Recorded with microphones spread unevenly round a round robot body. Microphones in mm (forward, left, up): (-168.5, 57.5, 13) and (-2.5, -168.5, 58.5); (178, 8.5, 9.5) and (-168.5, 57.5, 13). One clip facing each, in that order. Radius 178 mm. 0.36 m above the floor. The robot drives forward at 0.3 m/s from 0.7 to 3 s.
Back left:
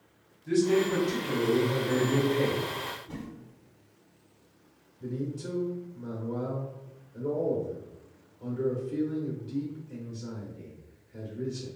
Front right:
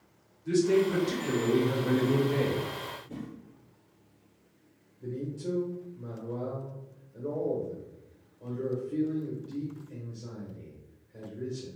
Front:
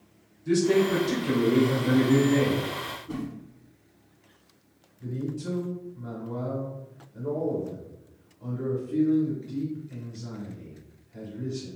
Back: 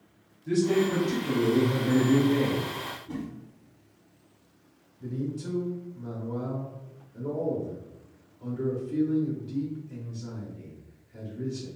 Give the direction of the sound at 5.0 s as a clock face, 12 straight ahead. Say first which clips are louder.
Back left 1 dB, even; 8 o'clock.